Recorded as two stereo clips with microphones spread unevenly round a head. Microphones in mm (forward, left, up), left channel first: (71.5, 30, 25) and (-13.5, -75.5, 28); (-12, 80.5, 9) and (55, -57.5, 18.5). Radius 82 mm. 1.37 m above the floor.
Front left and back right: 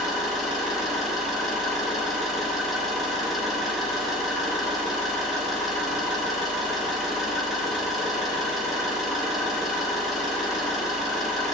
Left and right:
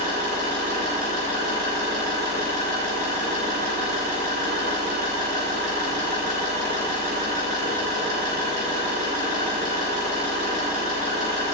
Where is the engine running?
40° right, 4 m.